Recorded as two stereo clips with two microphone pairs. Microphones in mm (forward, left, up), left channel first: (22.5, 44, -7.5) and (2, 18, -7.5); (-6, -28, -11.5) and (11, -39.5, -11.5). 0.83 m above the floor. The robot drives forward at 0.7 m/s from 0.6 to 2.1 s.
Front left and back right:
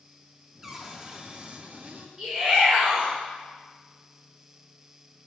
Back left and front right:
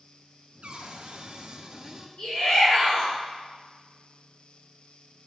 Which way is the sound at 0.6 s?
50° right.